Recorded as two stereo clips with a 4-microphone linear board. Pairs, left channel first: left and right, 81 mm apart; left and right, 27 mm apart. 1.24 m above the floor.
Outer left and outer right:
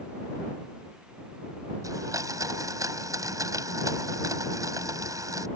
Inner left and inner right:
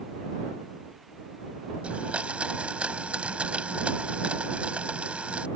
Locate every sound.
1.8 s a blender: 50° right (ahead or behind)